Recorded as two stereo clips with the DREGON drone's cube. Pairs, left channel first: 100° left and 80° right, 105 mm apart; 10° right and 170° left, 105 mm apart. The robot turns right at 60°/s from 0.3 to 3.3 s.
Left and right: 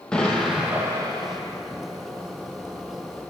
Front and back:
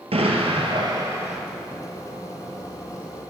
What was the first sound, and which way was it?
An explosion, 175° right.